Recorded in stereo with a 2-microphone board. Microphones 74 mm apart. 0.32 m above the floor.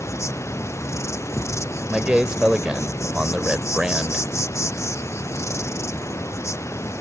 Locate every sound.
0.0 s an insect: 40° left (ahead or behind)
1.9 s a man speaking: 10° right (ahead or behind)